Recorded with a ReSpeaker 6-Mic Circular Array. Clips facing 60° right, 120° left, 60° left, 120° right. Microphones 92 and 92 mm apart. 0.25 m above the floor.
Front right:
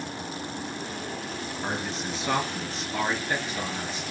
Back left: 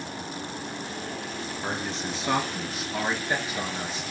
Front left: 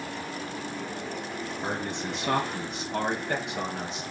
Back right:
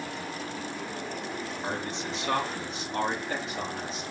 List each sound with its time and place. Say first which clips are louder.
1.6 s a man speaking: even, front left 2 dB; 25° left, 3.5 m; by 4.0 s 55° left, 3.5 m